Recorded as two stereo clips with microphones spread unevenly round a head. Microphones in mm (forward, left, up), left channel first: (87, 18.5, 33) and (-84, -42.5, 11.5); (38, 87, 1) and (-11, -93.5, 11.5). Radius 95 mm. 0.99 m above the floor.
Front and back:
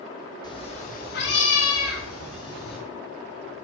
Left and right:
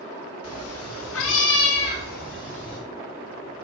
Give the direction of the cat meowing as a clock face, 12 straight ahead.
9 o'clock.